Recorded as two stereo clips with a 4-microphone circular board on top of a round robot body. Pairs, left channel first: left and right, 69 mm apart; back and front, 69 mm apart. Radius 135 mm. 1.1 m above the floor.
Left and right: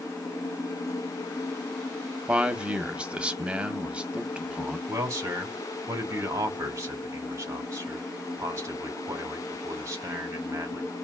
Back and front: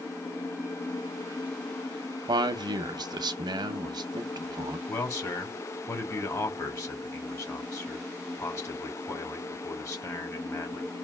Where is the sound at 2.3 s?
15° right, 0.6 m.